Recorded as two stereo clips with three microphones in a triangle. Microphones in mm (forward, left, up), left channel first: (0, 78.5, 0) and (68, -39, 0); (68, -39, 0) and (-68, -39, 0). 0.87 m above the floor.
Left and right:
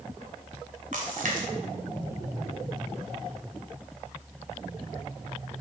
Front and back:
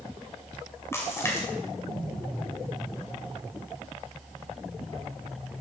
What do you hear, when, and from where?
0.9 s a splash: 70° right, 2.5 m